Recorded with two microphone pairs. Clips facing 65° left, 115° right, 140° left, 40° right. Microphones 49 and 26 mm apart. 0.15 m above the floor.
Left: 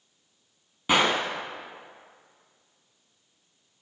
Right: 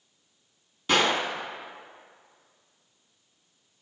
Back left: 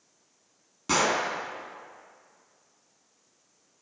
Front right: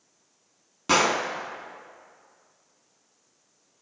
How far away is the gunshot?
About 0.8 m.